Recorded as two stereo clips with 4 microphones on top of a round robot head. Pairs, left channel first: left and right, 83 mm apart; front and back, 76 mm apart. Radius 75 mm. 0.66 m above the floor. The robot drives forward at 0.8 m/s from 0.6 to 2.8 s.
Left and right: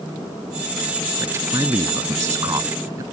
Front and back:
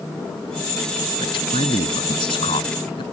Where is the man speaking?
25° right; by 3.0 s 30° right.